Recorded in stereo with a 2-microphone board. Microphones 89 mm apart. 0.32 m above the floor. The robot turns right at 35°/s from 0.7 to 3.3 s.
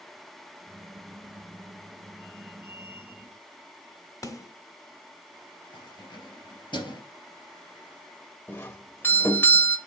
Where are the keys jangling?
55° left (ahead or behind), 4 m.